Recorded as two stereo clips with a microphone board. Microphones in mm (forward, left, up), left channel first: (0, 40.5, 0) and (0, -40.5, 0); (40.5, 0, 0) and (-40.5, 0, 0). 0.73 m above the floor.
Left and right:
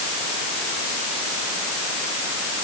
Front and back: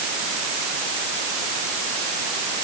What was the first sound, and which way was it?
Only background noise.